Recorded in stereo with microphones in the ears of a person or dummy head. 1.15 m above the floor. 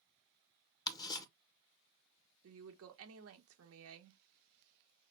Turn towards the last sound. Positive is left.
turn(degrees=-75)  # may be behind; listen again after turning